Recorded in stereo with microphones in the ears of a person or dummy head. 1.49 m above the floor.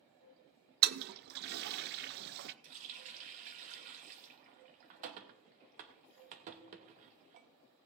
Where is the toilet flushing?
55° right (ahead or behind), 0.7 m.